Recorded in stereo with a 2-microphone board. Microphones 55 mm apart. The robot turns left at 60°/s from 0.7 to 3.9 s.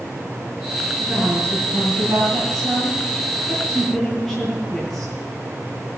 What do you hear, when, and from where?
1.0 s a woman speaking: straight ahead, 5 m; by 5.2 s 175° right, 5 m